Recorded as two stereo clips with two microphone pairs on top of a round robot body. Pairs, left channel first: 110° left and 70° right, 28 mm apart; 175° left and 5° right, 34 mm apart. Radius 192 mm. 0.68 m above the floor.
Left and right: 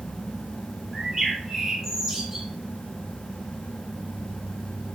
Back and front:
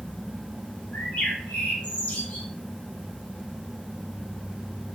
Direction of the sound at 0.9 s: 155° right.